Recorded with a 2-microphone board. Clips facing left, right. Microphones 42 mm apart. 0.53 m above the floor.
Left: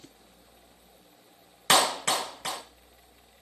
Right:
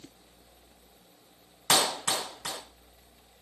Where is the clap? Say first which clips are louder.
Left 3 dB; 75° left (ahead or behind), 3 m.